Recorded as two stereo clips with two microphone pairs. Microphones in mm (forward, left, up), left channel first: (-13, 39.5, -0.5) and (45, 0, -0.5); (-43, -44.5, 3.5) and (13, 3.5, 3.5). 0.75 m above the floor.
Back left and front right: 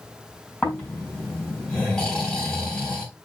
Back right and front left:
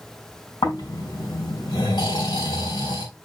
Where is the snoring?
135° right, 5.5 m.